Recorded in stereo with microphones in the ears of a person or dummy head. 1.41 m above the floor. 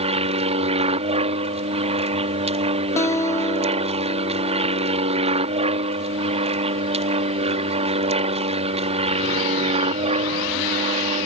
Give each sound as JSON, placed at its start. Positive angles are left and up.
{"t": 0.0, "sound": "an aircraft", "side_deg": -30}
{"t": 3.0, "sound": "a guitar", "side_deg": 15}